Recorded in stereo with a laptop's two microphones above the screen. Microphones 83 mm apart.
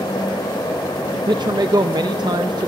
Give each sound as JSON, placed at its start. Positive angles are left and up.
{"t": 0.0, "sound": "a fan", "side_deg": 80, "distance_m": 2.0}
{"t": 1.1, "sound": "a man speaking", "side_deg": -60, "distance_m": 0.5}